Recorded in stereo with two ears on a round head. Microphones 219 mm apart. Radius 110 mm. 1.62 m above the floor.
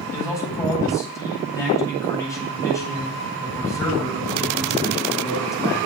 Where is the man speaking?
15° left (ahead or behind), 9 m.